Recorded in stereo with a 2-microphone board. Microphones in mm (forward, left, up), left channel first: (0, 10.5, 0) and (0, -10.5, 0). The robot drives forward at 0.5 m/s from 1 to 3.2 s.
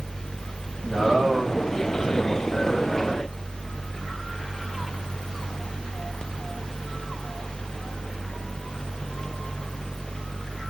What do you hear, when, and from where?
0.8 s a man speaking: 65° right (ahead or behind), 2.5 m; by 3.1 s 70° right (ahead or behind), 2.5 m